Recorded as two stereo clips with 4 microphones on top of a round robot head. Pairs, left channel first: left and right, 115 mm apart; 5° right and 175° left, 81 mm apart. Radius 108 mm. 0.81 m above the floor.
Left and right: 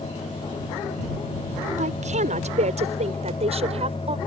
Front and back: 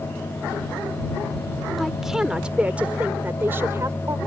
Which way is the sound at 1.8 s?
100° right.